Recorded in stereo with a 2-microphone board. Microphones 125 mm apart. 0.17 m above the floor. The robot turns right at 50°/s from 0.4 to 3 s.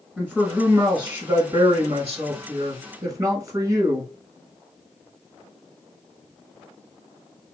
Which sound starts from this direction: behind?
A man speaking, at 0.2 s.